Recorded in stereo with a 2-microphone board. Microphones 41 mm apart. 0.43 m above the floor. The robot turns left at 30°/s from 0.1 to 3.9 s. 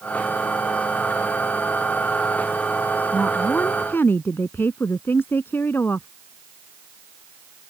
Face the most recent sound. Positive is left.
turn(degrees=65)  # may be behind; listen again after turning